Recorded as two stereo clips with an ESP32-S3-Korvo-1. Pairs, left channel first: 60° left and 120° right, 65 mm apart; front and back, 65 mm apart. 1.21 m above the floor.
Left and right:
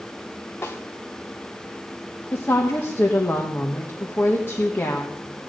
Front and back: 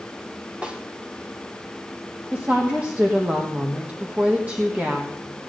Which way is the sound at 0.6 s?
110° left.